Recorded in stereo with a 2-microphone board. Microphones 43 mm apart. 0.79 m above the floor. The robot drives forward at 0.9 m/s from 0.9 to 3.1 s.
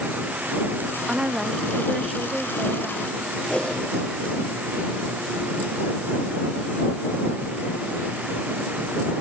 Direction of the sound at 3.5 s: 30° left (ahead or behind).